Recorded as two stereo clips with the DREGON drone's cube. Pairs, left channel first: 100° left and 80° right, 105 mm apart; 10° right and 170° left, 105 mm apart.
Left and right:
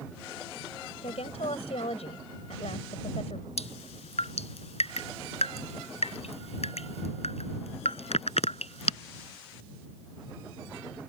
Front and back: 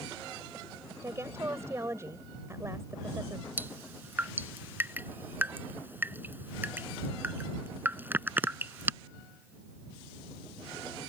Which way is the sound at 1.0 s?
105° left.